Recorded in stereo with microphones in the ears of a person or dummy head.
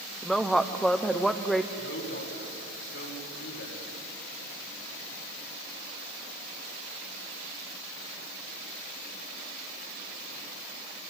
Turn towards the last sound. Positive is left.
turn(degrees=75)  # may be behind; listen again after turning